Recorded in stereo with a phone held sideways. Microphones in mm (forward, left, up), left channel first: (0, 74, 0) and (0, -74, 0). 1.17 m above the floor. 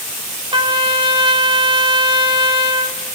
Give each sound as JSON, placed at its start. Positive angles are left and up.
{"t": 0.5, "sound": "a trumpet", "side_deg": -35, "distance_m": 2.5}